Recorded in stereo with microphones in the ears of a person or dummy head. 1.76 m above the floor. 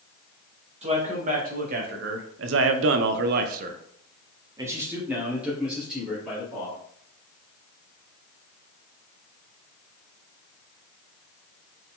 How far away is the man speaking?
About 1.3 m.